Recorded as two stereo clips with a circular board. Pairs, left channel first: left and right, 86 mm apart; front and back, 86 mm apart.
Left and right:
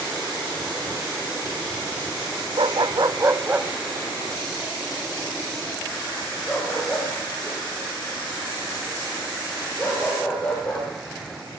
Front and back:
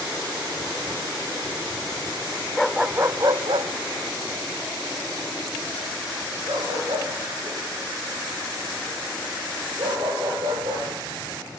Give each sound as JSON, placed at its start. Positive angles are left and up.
{"t": 2.6, "sound": "a dog barking", "azimuth_deg": -85, "distance_m": 0.8}